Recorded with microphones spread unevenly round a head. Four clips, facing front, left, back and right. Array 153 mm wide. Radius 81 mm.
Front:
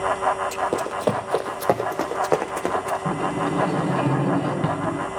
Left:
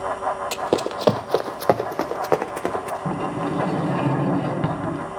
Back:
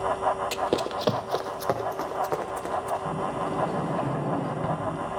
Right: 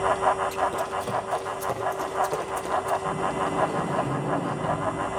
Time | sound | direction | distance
0.5 | running footsteps | 115° left | 1.2 m
3.0 | a sliding door | 45° left | 4 m